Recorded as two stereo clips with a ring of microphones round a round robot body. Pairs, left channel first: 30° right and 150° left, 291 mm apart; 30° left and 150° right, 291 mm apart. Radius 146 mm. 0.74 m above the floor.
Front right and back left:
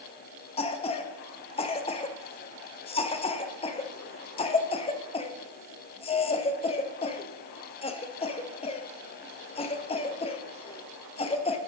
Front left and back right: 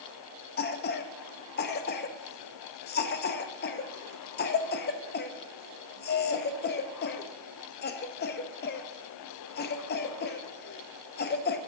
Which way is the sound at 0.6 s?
25° left.